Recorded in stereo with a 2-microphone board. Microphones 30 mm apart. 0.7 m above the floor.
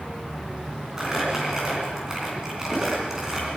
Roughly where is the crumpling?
Centre.